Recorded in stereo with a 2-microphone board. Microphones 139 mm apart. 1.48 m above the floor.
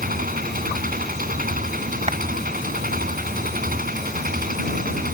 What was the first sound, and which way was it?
An engine running, 85° right.